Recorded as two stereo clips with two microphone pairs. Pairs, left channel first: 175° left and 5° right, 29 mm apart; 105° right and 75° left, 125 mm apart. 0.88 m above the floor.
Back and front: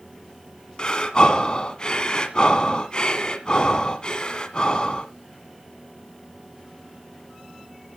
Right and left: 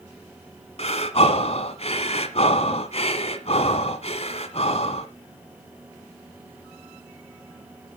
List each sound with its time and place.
0.8 s breathing: 130° right, 1.6 m